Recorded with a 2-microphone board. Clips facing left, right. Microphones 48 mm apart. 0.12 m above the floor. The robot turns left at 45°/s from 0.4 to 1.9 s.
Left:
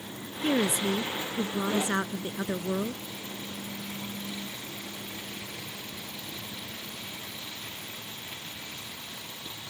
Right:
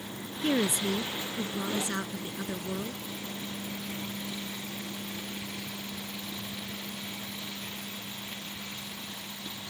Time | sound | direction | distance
0.4 | a woman speaking | straight behind | ?